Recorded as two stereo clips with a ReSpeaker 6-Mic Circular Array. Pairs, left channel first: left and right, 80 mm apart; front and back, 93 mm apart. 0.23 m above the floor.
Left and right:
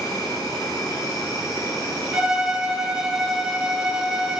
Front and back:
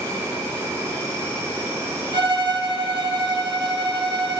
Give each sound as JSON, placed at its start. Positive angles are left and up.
{"t": 0.0, "sound": "an insect", "azimuth_deg": 125, "distance_m": 1.5}
{"t": 2.1, "sound": "a violin", "azimuth_deg": -175, "distance_m": 0.6}